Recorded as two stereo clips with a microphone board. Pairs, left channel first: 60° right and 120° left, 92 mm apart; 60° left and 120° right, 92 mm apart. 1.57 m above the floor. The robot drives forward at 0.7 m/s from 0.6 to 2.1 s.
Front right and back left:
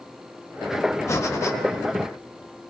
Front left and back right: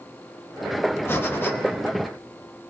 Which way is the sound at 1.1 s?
5° right.